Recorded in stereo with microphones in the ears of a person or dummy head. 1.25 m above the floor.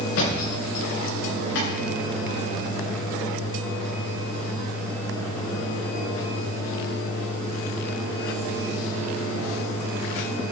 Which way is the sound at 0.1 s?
75° left (ahead or behind).